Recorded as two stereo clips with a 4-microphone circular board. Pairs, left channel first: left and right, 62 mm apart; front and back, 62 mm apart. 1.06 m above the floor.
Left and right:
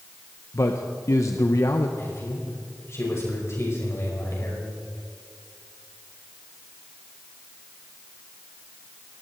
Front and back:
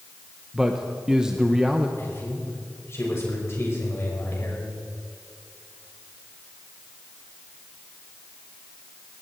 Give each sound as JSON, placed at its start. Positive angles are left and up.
{"t": 0.5, "sound": "a man speaking", "azimuth_deg": 105, "distance_m": 0.9}
{"t": 2.0, "sound": "a man speaking", "azimuth_deg": 45, "distance_m": 5.5}